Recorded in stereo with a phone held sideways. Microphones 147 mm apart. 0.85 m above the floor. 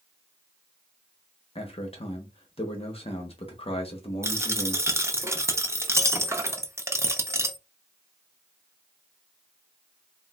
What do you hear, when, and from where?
1.6 s a man speaking: 40° left (ahead or behind), 0.8 m
4.2 s a dropped coin: 20° right (ahead or behind), 0.5 m